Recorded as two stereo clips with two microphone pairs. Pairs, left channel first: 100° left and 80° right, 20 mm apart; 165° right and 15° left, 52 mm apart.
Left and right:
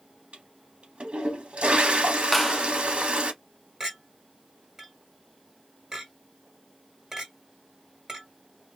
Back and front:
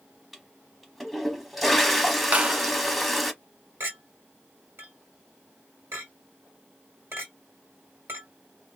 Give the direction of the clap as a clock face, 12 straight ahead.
11 o'clock.